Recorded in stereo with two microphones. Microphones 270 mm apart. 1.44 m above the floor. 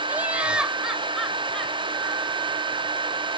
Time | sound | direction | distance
0.1 | laughter | 5° right (ahead or behind) | ?